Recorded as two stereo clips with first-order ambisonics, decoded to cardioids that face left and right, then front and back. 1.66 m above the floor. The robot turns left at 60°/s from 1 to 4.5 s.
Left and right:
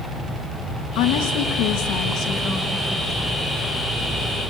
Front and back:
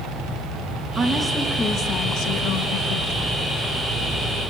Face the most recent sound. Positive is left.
turn(degrees=-95)